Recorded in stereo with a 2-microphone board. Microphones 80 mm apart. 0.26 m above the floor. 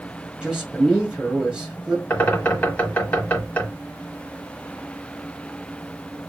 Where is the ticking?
No ticking in this recording.